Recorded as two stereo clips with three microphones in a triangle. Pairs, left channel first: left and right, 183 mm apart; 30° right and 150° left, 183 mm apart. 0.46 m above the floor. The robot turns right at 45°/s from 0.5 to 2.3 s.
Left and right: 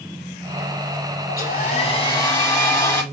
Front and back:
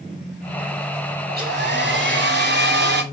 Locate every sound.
1.3 s a hair dryer: 115° left, 1.3 m; by 3.0 s 165° left, 1.3 m